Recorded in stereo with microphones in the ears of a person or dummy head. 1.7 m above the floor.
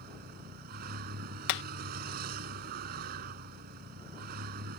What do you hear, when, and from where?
0.0 s a vehicle: 55° right (ahead or behind)
1.5 s hammering: 65° left (ahead or behind)